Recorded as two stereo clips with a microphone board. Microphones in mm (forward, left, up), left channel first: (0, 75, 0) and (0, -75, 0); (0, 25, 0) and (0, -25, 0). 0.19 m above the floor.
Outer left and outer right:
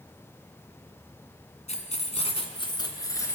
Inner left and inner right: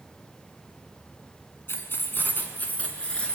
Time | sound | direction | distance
1.7 | keys jangling | 50° left (ahead or behind) | 1.5 m